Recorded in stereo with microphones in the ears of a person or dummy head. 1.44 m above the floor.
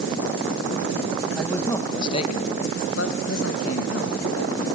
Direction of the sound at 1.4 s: 10° left (ahead or behind).